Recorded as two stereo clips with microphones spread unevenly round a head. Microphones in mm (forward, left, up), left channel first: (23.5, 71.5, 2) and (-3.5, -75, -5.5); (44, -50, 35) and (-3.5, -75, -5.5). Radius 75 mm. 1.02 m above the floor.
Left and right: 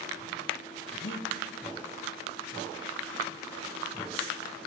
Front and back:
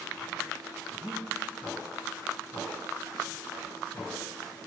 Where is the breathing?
120° left, 5 m.